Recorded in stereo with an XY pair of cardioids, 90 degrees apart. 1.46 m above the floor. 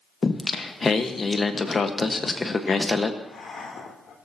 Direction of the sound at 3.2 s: 60° left.